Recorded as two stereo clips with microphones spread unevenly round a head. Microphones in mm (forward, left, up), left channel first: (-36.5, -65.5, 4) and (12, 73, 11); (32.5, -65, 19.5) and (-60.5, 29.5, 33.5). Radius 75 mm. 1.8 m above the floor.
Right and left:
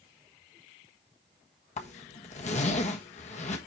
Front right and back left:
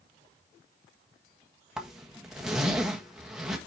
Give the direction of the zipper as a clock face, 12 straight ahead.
5 o'clock.